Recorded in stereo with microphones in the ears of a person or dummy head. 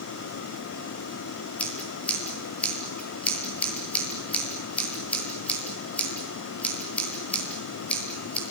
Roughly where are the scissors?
Centre.